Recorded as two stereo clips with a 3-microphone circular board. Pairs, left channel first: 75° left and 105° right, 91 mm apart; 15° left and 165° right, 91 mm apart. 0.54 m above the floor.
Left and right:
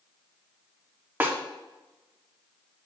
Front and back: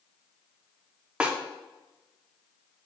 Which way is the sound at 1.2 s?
110° right.